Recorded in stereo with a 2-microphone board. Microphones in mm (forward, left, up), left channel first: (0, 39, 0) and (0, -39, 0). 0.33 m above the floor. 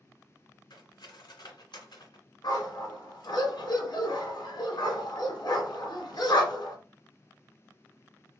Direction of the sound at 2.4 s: 70° left (ahead or behind).